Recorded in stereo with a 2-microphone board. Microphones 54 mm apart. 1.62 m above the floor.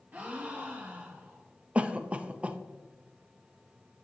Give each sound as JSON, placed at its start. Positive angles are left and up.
{"t": 0.1, "sound": "a gasp", "side_deg": -30, "distance_m": 1.3}
{"t": 1.8, "sound": "a cough", "side_deg": -25, "distance_m": 0.6}